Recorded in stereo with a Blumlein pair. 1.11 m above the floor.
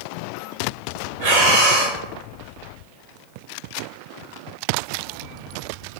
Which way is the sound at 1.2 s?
55° right.